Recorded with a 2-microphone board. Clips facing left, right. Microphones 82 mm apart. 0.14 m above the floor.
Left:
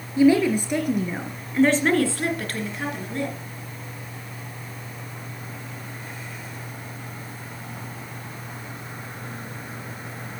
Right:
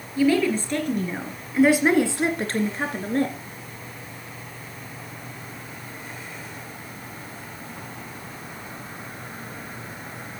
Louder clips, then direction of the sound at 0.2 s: Left 3 dB; 20° left (ahead or behind).